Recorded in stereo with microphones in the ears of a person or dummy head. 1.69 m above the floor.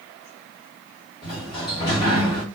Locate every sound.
1.2 s a sliding door: 30° left (ahead or behind), 1.5 m